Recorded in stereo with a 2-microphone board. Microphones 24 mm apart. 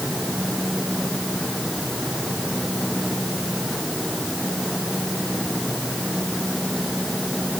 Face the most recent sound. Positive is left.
No sound to turn to.